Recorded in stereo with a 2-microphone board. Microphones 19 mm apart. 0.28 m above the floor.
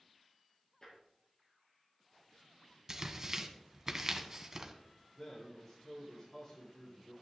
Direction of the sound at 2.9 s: 25° right (ahead or behind).